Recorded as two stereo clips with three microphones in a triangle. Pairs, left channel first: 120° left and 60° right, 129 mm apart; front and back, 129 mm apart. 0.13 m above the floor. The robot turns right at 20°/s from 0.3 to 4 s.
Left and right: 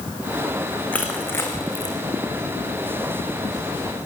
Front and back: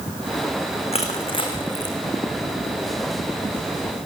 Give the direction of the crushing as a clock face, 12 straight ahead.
11 o'clock.